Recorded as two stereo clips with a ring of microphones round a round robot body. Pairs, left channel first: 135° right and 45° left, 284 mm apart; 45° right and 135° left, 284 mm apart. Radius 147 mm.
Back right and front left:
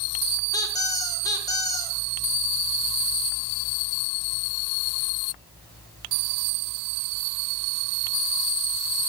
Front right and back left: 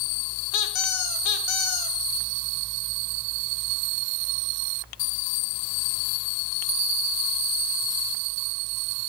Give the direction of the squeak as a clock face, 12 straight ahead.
2 o'clock.